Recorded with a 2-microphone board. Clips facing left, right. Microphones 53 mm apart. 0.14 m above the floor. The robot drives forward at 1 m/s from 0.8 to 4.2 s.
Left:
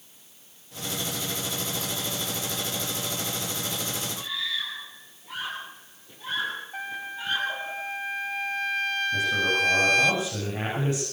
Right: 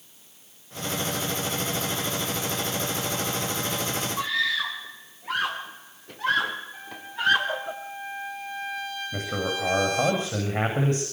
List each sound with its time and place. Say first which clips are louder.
4.2 s a scream: right 10 dB; 70° right (ahead or behind), 3.5 m
6.7 s a trumpet: left 1 dB; 55° left (ahead or behind), 2.5 m
9.1 s a man speaking: left 3 dB; 40° right (ahead or behind), 9.5 m